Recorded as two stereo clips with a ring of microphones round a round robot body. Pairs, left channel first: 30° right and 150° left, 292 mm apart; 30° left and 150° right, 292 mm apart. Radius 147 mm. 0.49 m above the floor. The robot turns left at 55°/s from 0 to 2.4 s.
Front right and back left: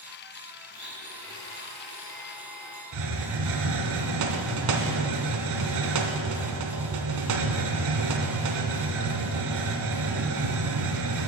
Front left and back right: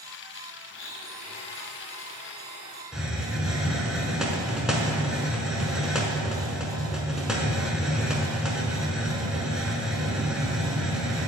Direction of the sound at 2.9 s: 125° left.